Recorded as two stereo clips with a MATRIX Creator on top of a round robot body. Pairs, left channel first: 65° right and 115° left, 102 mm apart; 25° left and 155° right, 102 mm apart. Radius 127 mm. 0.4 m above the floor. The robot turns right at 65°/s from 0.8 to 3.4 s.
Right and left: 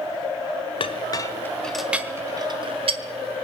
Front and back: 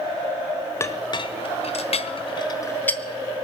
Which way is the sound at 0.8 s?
40° right.